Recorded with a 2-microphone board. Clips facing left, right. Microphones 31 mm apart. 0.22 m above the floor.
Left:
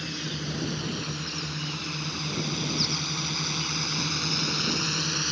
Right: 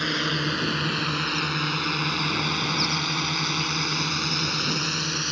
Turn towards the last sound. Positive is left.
turn(degrees=-5)  # may be behind; listen again after turning